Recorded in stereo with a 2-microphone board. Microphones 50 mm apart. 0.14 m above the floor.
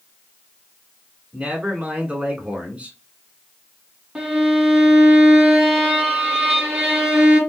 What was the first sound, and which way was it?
A man speaking, 25° right (ahead or behind).